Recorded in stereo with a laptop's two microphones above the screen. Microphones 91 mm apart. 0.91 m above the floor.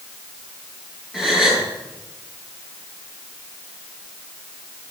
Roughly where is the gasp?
Centre.